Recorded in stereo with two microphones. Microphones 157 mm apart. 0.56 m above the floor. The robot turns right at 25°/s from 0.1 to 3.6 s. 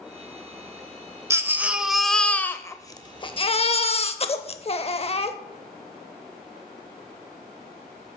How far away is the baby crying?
About 0.5 m.